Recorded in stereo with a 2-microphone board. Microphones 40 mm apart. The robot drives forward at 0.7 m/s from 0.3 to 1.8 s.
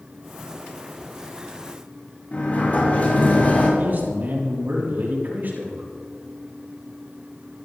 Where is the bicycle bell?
I don't hear a bicycle bell.